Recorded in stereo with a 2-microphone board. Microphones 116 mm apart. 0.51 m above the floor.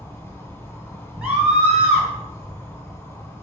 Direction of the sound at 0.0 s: 20° left (ahead or behind).